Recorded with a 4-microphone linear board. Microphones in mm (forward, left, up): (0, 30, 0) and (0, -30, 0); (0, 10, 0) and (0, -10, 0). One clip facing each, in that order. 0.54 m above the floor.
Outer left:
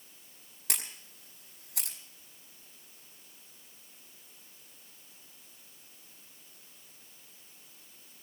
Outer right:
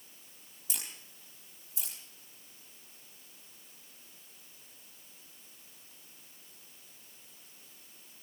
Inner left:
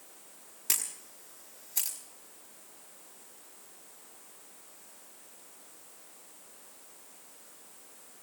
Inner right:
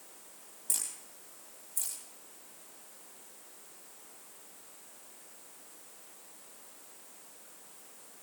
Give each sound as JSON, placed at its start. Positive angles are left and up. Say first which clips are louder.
{"t": 0.7, "sound": "a camera shutter", "louder": "outer left 5 dB, inner left 4 dB", "side_deg": 75, "distance_m": 4.5}